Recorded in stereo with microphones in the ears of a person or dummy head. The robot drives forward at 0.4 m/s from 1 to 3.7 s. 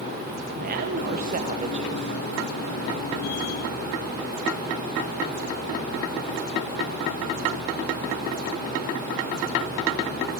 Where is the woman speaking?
45° right (ahead or behind), 0.8 m; by 2.1 s 30° right (ahead or behind), 1.1 m.